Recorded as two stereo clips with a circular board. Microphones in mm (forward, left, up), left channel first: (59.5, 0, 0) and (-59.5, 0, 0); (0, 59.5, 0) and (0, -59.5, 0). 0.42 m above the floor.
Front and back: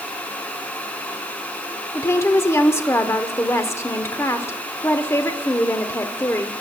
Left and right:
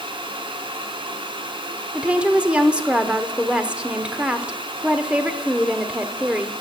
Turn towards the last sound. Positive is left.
turn(degrees=-25)